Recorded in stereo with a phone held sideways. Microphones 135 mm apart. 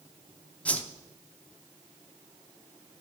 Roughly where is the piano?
No piano in this recording.